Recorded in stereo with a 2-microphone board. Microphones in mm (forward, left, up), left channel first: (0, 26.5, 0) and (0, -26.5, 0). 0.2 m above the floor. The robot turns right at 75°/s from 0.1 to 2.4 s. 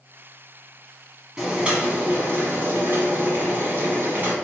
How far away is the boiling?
About 1.1 m.